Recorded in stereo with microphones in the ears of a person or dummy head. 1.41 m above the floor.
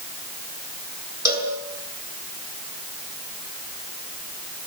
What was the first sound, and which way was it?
A cowbell, 20° right (ahead or behind).